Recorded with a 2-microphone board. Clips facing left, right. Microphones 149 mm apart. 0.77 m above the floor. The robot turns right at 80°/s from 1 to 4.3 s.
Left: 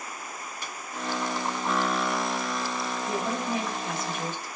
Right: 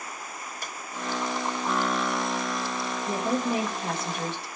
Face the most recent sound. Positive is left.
turn(degrees=-35)